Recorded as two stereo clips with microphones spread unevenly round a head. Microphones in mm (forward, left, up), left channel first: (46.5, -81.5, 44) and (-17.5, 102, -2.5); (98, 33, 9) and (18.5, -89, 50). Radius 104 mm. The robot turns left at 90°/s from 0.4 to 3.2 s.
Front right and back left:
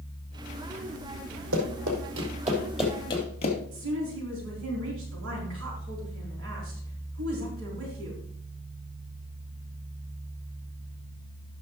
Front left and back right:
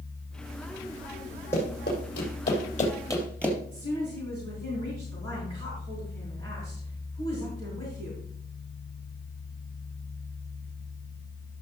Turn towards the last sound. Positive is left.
turn(degrees=130)